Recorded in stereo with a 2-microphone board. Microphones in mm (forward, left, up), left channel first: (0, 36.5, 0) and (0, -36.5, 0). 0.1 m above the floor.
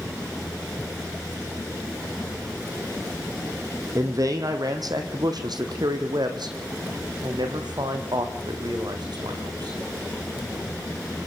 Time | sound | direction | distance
4.0 | a man speaking | 50° right (ahead or behind) | 3 m